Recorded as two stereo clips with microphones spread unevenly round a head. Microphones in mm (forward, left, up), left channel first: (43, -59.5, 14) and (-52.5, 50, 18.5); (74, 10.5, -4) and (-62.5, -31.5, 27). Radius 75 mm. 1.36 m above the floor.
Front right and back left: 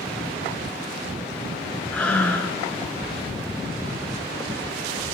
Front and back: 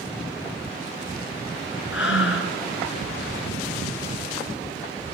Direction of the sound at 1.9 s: 35° left.